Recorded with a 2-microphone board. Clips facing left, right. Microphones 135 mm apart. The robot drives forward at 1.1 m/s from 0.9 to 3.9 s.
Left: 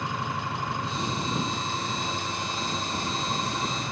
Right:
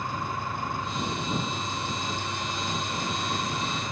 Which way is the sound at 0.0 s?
85° left.